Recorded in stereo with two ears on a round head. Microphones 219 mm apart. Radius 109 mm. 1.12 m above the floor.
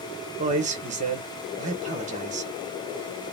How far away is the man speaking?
About 1.0 m.